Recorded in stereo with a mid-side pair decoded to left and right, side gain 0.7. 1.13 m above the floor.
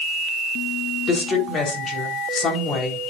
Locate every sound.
1.1 s a woman speaking: 30° left, 4 m